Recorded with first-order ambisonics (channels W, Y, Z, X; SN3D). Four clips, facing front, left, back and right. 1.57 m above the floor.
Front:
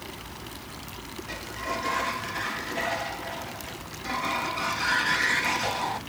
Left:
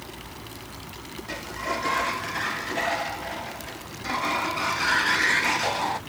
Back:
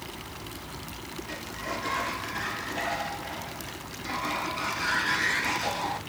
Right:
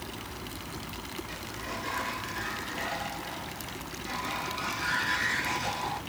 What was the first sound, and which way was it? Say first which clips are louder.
A sliding door: left 7 dB, front 3 dB; 80° left.